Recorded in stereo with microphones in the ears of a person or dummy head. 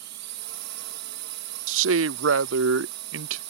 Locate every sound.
0.0 s a drone: 55° right (ahead or behind)
1.7 s a man speaking: 80° right